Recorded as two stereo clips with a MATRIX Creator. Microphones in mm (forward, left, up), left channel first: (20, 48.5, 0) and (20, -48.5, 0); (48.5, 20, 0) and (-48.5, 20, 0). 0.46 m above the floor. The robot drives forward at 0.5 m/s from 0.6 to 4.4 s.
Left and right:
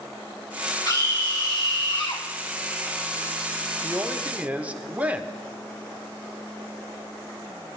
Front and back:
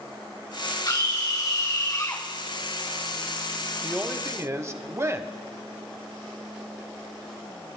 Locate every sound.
0.8 s a scream: 45° left, 3.5 m; by 2.2 s 55° left, 3 m
3.8 s a woman speaking: 115° right, 0.7 m; by 5.3 s 150° right, 0.8 m